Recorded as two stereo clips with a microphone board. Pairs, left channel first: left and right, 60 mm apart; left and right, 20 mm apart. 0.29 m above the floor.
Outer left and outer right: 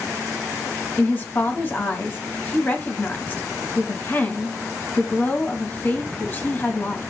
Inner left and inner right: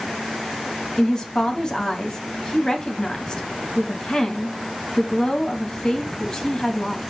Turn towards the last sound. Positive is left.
turn(degrees=35)  # may be behind; listen again after turning